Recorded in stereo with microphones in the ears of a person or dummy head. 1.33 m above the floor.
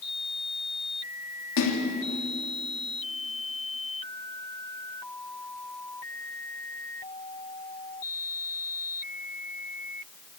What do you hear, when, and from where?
1.6 s a splash: 85° left, 3.5 m